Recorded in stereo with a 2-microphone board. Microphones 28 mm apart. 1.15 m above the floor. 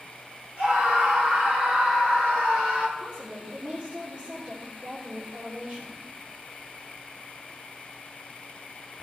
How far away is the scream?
About 4 m.